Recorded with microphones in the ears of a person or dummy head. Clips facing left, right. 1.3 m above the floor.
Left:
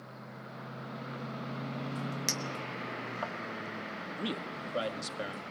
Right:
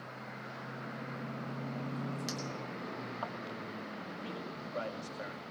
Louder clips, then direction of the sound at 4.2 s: Left 9 dB; 55° left (ahead or behind).